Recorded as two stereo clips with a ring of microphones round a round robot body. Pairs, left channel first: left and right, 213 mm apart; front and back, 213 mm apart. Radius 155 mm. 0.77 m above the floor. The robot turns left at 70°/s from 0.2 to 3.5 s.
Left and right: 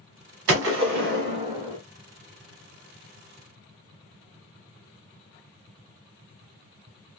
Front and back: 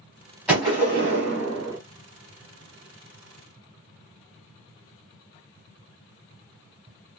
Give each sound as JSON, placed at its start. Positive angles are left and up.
{"t": 0.5, "sound": "a gunshot", "azimuth_deg": -95, "distance_m": 0.7}